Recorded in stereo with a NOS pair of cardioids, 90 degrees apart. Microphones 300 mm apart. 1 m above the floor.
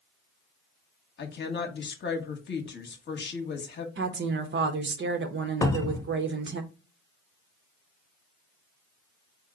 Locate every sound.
1.2 s a woman speaking: 35° left, 1.1 m
4.0 s a woman speaking: 40° right, 0.9 m
5.6 s a cupboard door: 10° left, 0.7 m